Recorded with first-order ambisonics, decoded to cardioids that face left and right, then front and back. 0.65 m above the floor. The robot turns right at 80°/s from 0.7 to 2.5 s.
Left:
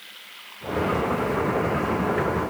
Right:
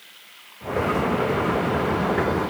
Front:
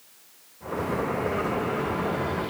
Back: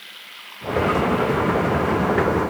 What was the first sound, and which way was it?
Running water, 170° left.